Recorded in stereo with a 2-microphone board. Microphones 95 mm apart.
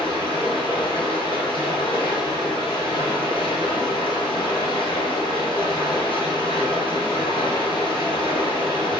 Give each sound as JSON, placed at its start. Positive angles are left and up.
{"t": 0.0, "sound": "running water", "side_deg": 60, "distance_m": 1.4}